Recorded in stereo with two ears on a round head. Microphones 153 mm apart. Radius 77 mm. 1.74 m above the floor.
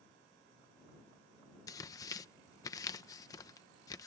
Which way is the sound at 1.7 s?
20° left (ahead or behind).